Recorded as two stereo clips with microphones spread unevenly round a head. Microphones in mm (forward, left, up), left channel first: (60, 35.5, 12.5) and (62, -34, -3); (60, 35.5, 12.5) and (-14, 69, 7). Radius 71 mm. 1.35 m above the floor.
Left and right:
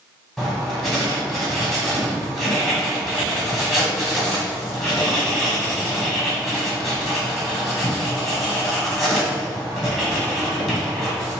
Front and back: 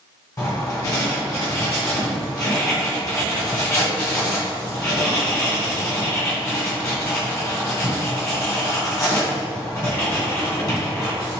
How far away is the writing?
About 1.9 m.